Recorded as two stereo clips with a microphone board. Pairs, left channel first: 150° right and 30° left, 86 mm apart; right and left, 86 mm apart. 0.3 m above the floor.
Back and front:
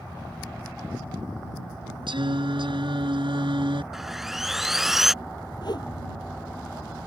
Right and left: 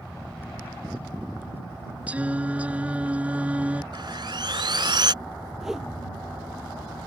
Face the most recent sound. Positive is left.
turn(degrees=175)